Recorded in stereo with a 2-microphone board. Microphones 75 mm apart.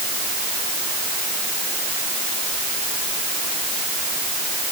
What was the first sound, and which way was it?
Only background noise.